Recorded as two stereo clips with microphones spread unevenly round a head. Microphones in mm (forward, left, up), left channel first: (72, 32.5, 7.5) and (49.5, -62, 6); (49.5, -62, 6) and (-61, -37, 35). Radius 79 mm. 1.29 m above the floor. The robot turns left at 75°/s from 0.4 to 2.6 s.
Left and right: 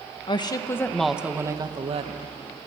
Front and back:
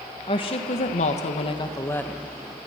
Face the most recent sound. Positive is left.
turn(degrees=-130)